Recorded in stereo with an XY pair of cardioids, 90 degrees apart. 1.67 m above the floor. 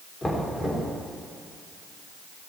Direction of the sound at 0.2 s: 20° left.